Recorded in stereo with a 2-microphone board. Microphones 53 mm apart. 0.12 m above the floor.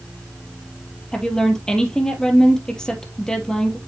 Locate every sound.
1.1 s a woman speaking: 15° left (ahead or behind), 2.5 m